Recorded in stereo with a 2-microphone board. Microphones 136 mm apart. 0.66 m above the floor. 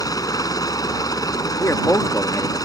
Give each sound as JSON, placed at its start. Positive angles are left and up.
{"t": 0.0, "sound": "a helicopter", "side_deg": 25}
{"t": 1.6, "sound": "a man speaking", "side_deg": 20}